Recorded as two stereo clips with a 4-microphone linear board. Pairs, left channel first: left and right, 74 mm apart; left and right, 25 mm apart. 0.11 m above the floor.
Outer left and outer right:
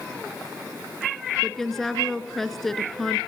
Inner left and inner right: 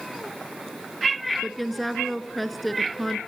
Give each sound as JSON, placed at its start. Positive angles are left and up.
{"t": 1.4, "sound": "a woman speaking", "side_deg": 5, "distance_m": 1.3}